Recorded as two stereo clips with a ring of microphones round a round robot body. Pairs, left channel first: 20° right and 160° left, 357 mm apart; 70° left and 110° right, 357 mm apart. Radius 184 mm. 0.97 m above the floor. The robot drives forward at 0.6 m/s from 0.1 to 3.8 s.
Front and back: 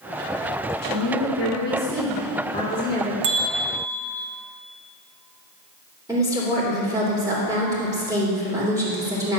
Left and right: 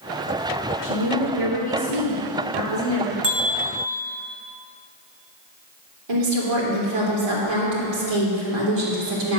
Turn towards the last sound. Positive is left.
turn(degrees=-120)